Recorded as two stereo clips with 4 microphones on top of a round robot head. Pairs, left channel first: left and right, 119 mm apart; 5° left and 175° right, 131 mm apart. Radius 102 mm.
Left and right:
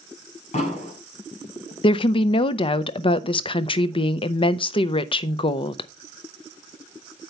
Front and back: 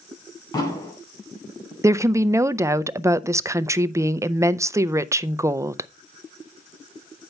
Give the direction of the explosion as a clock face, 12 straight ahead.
10 o'clock.